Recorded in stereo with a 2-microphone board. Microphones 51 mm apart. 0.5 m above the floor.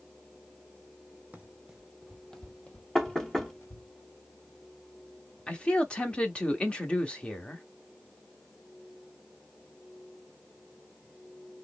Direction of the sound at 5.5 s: 20° left (ahead or behind).